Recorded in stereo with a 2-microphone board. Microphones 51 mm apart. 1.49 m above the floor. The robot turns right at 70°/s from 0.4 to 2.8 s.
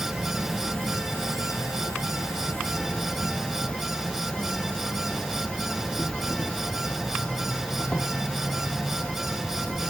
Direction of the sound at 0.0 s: 5° right.